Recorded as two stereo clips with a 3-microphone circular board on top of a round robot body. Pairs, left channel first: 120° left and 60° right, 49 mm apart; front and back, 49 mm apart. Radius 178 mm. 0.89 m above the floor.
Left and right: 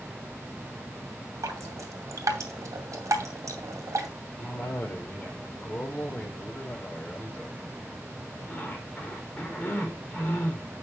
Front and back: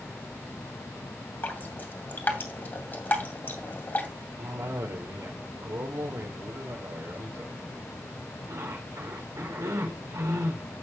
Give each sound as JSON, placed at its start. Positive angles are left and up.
{"t": 1.4, "sound": "dripping", "azimuth_deg": -55, "distance_m": 2.0}
{"t": 4.4, "sound": "a cough", "azimuth_deg": -175, "distance_m": 4.5}